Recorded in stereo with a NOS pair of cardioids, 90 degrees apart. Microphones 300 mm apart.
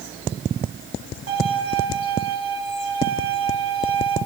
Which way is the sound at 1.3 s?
50° right.